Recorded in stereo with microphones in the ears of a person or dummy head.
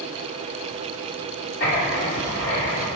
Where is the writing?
65° left (ahead or behind), 2.5 m.